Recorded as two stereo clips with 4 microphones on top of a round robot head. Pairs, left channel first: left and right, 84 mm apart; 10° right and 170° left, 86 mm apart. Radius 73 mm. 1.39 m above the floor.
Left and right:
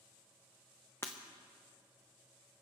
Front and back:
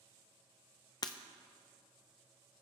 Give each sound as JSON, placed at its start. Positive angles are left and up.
{"t": 1.0, "sound": "breaking glass", "azimuth_deg": 20, "distance_m": 0.6}